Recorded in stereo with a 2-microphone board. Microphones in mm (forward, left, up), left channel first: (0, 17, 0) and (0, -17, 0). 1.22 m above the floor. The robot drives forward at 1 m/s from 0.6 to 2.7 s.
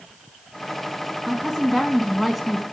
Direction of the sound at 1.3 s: Centre (ahead or behind).